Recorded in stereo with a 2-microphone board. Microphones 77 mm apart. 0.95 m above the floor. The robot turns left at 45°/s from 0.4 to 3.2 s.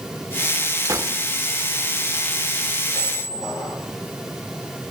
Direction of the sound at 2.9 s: 75° left (ahead or behind).